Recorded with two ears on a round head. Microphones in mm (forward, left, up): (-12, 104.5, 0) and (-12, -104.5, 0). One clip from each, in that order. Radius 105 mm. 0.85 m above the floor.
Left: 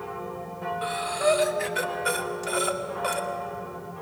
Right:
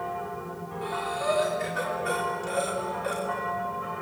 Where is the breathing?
45° left (ahead or behind), 2.5 m.